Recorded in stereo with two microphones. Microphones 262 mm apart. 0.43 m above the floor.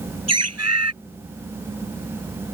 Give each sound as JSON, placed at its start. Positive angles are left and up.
{"t": 0.3, "sound": "a bird", "side_deg": -80}